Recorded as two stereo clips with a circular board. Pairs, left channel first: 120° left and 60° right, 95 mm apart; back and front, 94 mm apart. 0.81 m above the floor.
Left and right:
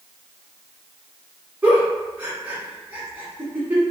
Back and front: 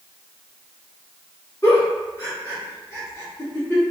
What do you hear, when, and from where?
1.6 s a giggle: 130° right, 1.2 m